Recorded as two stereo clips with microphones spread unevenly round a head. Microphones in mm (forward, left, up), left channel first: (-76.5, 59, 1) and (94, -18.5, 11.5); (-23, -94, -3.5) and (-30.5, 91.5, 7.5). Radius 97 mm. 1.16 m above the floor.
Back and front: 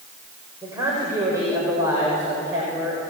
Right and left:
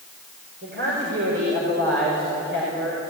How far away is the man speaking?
About 5.5 m.